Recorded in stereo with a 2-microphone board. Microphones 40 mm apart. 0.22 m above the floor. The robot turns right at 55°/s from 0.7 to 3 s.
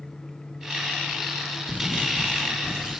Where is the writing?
130° left, 7 m; by 3.0 s 160° right, 7 m.